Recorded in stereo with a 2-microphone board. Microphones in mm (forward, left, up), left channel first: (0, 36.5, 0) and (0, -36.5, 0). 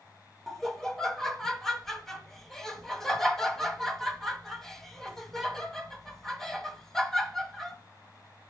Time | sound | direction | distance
0.5 | laughter | 5° left (ahead or behind) | 1.0 m